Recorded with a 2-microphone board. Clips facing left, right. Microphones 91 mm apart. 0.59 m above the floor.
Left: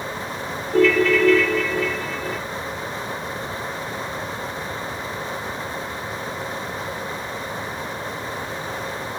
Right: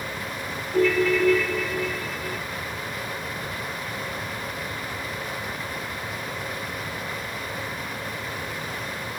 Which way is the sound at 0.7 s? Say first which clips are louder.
Left 4 dB; 70° left (ahead or behind).